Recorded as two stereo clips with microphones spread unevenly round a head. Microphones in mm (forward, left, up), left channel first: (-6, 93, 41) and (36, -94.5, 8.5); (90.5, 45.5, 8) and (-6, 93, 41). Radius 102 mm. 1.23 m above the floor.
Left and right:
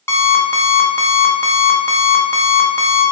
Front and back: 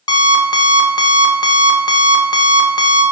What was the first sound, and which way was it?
An alarm clock, 35° left.